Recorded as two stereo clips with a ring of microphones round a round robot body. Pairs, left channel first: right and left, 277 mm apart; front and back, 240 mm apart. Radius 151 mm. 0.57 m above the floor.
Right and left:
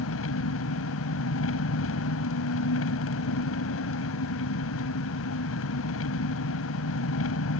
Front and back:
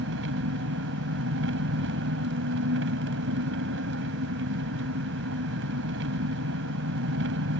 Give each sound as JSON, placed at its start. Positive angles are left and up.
{"t": 0.0, "sound": "an engine running", "azimuth_deg": -130}